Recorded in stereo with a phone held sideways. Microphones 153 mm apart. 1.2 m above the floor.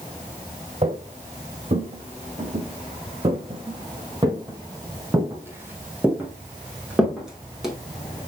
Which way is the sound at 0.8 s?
50° right (ahead or behind).